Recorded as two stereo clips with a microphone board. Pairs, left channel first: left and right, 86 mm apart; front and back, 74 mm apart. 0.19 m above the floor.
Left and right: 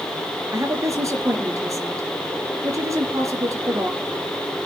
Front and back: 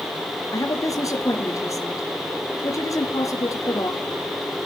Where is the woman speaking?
40° right, 4 m.